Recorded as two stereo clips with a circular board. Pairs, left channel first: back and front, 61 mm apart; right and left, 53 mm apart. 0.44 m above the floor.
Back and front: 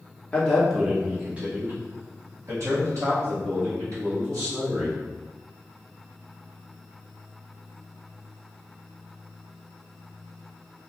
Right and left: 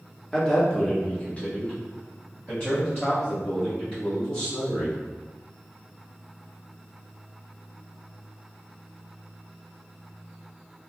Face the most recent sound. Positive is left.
turn(degrees=-25)